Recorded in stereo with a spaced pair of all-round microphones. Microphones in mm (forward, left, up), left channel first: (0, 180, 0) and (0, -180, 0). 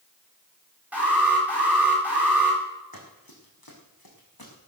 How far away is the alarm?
About 8 m.